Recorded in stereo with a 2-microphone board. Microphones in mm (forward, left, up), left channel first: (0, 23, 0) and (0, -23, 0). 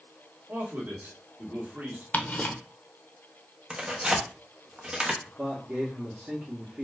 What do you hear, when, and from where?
0.5 s a man speaking: 45° right (ahead or behind), 1.7 m
2.1 s ticking: 35° left (ahead or behind), 0.5 m
3.7 s tearing paper: 25° right (ahead or behind), 0.7 m
5.2 s a man speaking: 40° right (ahead or behind), 0.8 m